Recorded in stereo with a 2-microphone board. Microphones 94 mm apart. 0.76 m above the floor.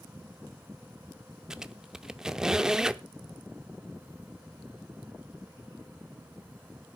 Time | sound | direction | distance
1.5 | a squeak | 5° right (ahead or behind) | 0.6 m